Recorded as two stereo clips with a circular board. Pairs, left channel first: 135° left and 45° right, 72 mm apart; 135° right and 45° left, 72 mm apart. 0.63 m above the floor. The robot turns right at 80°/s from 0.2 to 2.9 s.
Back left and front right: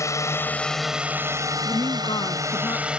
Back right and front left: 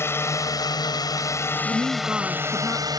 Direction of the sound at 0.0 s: 175° left.